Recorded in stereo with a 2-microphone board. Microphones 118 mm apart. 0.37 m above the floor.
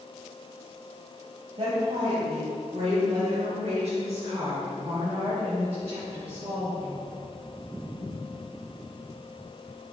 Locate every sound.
1.6 s a woman speaking: 55° right (ahead or behind), 2 m; by 6.9 s 60° right (ahead or behind), 5.5 m